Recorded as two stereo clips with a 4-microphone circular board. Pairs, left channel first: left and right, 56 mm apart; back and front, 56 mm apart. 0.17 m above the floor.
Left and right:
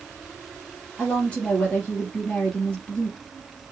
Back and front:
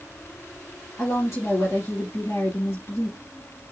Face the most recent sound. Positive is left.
turn(degrees=155)